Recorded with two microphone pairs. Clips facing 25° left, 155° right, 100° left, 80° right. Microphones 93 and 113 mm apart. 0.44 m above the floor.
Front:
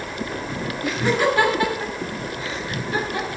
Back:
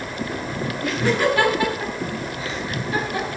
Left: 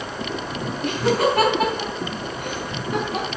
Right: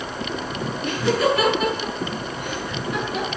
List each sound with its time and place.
0.8 s laughter: 110° left, 2.5 m; by 3.3 s 140° left, 3.5 m